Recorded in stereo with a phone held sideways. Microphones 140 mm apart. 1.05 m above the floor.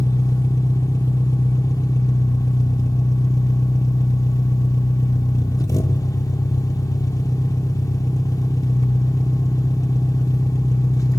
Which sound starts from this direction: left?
An engine running, at 0.0 s.